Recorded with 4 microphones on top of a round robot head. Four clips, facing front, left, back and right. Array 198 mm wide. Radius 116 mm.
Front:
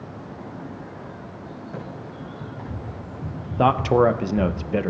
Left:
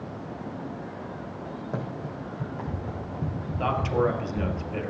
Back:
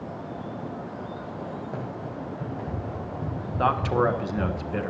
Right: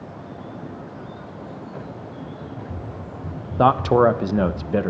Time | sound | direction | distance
1.7 | running footsteps | 115° left | 4 m
3.6 | a man speaking | 60° right | 0.6 m